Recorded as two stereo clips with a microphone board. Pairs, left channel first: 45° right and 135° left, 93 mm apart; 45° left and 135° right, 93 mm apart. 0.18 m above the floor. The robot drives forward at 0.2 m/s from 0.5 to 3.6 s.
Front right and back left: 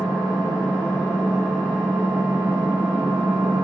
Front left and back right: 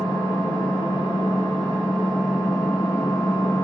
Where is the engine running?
65° left, 2 m; by 3.6 s 85° left, 1.9 m.